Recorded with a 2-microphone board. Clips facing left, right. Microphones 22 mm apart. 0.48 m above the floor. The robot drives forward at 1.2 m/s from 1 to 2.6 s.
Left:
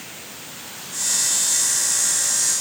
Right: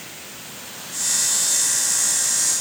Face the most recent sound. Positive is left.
No sound to turn to.